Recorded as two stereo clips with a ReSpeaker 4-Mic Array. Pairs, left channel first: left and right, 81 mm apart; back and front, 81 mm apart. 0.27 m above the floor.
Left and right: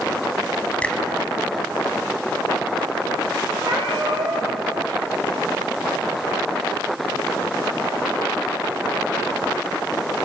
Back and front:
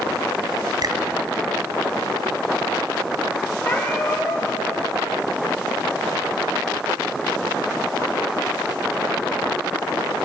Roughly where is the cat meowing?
Right.